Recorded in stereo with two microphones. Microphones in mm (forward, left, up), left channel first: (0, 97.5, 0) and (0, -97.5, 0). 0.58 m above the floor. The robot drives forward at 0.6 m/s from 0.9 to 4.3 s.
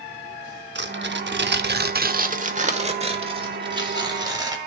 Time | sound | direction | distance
0.8 | tearing paper | 65° right (ahead or behind) | 0.8 m